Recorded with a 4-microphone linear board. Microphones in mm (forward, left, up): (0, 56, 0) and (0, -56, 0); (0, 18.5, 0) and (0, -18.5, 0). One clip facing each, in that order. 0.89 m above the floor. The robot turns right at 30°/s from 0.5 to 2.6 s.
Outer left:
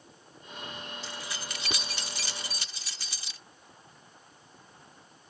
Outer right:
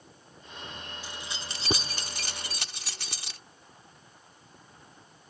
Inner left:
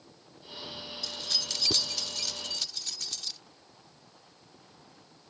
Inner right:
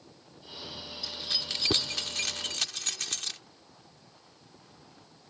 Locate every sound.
1.0 s keys jangling: 15° right (ahead or behind); by 3.4 s 60° right (ahead or behind)